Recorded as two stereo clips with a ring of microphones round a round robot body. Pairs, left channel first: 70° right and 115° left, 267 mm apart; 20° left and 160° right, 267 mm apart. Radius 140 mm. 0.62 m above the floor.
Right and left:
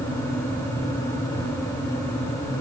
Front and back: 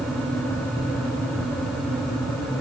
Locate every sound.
Only background noise.